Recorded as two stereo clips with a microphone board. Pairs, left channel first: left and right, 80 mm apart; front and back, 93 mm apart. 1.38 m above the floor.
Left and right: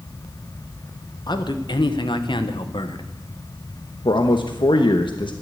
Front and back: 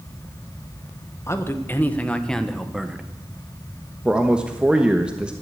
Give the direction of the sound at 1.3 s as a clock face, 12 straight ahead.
10 o'clock.